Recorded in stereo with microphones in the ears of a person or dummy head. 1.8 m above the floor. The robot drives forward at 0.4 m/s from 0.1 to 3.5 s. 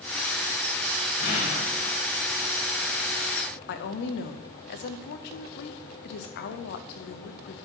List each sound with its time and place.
1.2 s an explosion: 50° left (ahead or behind), 1.4 m; by 2.0 s 45° left (ahead or behind), 1.6 m
3.7 s a woman speaking: 55° left (ahead or behind), 0.7 m